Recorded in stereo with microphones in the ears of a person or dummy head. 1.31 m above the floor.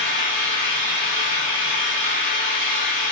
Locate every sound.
0.0 s an engine running: 45° left (ahead or behind), 1.0 m